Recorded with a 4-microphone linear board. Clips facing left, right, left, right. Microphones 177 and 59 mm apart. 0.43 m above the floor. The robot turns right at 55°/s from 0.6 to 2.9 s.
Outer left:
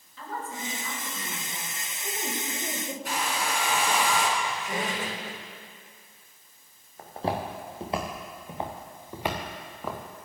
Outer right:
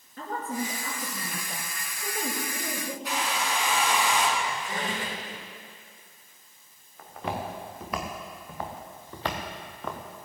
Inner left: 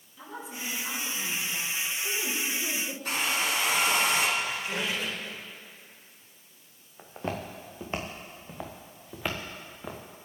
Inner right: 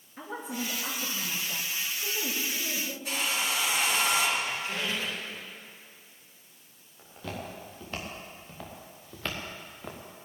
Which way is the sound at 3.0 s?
50° left (ahead or behind).